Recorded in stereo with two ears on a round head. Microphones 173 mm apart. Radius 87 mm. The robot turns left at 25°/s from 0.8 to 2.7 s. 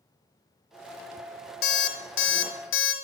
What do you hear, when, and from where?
1.6 s an alarm clock: 55° left (ahead or behind), 0.7 m; by 2.9 s 70° left (ahead or behind), 0.7 m